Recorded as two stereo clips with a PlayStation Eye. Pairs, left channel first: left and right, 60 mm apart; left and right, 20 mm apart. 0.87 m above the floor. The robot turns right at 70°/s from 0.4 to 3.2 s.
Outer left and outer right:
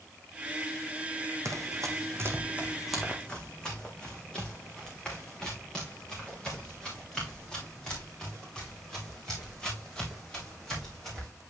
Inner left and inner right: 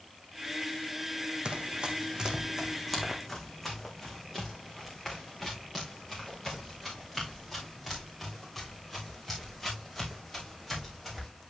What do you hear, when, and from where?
1.4 s running footsteps: 55° right (ahead or behind), 1.5 m; by 11.3 s 10° left (ahead or behind), 6.5 m